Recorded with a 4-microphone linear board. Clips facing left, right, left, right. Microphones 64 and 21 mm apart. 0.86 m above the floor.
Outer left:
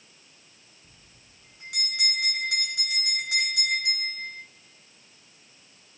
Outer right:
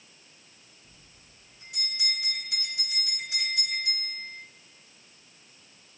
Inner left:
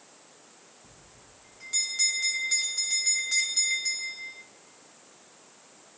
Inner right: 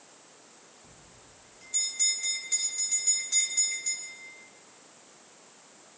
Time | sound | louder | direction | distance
0.8 | a bell | even, even | 85° left | 3 m